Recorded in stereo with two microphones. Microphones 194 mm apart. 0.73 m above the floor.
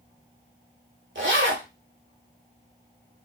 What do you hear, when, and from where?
1.1 s a zipper: 80° right, 0.8 m